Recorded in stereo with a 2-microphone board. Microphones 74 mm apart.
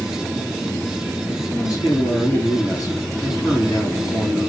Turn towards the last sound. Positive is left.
turn(degrees=60)  # may be behind; listen again after turning